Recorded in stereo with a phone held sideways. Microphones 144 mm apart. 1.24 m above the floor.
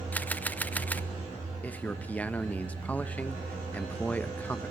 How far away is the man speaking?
About 0.9 m.